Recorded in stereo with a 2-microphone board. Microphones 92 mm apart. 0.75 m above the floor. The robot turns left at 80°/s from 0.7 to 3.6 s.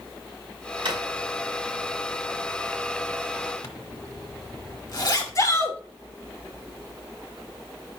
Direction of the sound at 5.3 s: 40° left (ahead or behind).